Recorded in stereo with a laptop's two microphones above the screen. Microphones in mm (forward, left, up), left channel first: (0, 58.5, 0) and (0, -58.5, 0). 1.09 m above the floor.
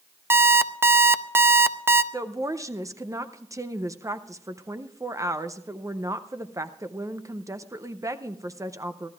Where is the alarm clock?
20° right (ahead or behind), 0.6 m.